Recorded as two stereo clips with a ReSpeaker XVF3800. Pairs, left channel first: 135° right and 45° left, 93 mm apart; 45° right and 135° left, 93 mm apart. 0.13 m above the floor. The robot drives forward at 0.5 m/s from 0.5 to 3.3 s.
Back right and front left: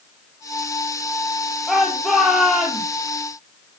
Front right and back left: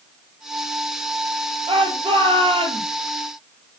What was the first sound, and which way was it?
A shout, 135° left.